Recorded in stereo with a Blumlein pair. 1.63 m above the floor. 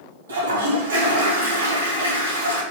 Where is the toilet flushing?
70° right, 3.5 m.